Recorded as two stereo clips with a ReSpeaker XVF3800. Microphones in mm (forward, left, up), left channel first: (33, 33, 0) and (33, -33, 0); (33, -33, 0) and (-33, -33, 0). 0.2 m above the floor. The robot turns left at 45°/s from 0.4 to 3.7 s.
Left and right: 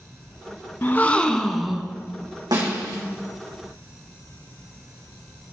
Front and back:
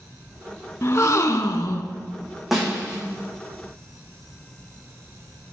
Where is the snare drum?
90° right, 3 m; by 3.0 s 115° right, 3 m.